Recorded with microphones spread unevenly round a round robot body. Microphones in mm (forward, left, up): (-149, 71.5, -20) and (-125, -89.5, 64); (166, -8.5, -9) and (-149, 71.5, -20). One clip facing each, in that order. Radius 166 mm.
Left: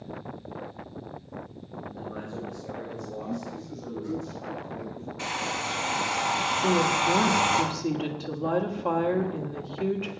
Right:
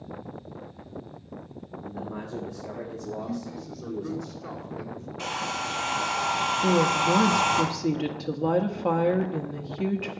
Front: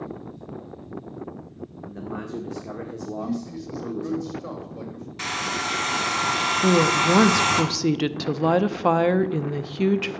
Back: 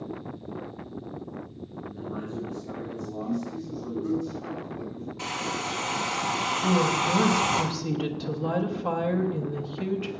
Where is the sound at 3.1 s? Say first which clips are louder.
Left 1 dB, front 1 dB; 45° right, 4 m.